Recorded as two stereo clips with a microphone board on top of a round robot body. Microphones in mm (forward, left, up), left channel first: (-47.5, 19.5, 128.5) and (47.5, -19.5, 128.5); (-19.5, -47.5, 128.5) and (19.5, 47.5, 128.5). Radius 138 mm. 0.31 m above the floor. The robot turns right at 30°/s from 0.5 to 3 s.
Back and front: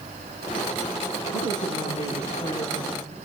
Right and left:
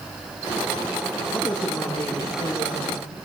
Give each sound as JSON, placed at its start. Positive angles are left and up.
{"t": 1.3, "sound": "a woman speaking", "azimuth_deg": 160, "distance_m": 9.0}